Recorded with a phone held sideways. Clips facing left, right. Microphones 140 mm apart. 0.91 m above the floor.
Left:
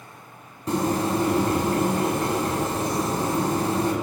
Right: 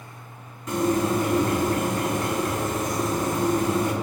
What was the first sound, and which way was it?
A bird, 30° left (ahead or behind).